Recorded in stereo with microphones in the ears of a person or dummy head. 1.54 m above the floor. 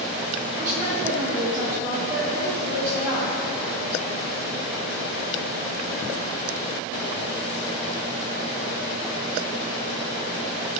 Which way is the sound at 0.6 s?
20° right (ahead or behind).